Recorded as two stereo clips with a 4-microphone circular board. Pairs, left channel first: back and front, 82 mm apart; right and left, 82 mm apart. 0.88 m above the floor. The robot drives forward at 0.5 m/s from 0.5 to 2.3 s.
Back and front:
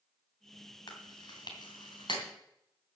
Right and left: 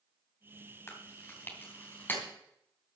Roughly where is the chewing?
Behind right.